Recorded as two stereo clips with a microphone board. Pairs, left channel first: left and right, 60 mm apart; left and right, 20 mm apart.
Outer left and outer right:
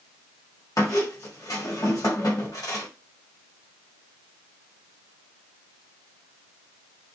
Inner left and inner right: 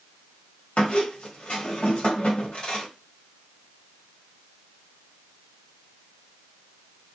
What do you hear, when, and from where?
0.8 s a squeak: 65° left (ahead or behind), 1.0 m